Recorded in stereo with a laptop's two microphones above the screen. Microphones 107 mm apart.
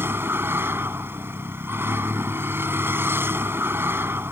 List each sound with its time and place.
0.0 s a vehicle: 20° right (ahead or behind)